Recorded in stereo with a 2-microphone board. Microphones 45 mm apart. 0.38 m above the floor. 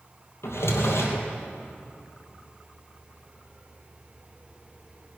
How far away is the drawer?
About 2.5 m.